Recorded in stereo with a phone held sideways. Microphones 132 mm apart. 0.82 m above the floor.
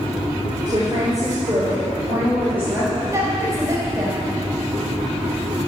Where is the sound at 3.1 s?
25° right (ahead or behind), 4 m.